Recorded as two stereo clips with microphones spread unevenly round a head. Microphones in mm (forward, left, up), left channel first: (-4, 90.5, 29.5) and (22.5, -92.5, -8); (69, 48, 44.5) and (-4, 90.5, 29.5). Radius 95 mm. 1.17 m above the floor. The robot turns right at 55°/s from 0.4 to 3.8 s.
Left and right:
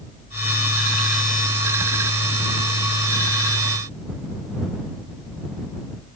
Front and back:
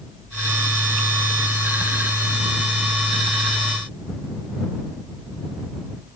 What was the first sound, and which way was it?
Only background noise.